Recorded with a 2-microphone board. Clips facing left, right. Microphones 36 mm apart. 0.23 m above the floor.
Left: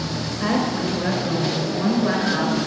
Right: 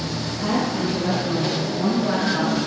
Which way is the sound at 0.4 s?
60° left (ahead or behind).